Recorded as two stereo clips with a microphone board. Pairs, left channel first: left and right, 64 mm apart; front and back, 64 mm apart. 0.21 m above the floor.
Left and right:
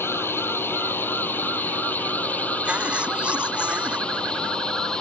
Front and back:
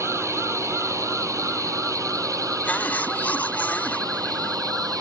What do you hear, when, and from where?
0.0 s a drone: 140° left; by 5.0 s 165° left
2.6 s a cough: 40° right